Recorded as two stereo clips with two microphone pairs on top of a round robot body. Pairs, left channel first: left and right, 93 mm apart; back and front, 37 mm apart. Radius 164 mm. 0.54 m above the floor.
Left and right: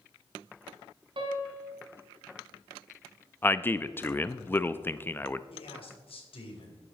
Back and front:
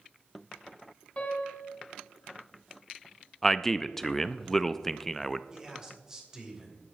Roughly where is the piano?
Behind right.